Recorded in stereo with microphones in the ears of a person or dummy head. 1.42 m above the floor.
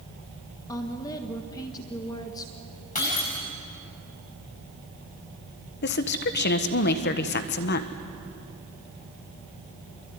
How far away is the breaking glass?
About 7 m.